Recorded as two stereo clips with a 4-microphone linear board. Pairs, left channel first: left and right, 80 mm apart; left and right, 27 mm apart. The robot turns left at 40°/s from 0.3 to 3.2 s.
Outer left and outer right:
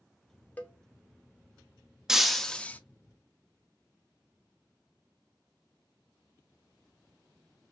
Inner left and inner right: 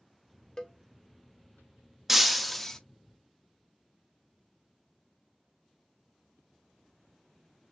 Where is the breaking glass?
5° right (ahead or behind), 0.6 m; by 2.8 s 20° left (ahead or behind), 0.6 m.